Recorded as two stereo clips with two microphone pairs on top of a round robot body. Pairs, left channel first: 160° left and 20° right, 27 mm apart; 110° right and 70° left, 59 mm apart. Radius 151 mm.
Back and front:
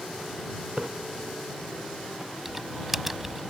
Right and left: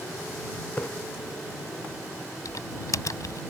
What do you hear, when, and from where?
0.8 s a splash: 55° right
2.5 s typing on a keyboard: 100° right